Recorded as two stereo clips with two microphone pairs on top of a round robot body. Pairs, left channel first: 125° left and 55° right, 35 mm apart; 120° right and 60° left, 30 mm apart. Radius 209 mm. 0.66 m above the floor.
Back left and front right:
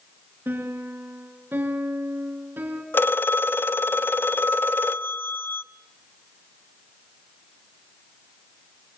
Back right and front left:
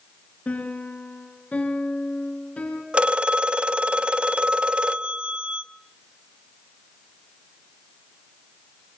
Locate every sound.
0.5 s a piano: 80° right, 3.5 m
2.9 s a phone ringing: 110° left, 1.0 m